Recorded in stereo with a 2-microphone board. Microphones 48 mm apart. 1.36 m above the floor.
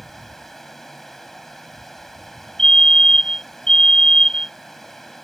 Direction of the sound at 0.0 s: 5° left (ahead or behind).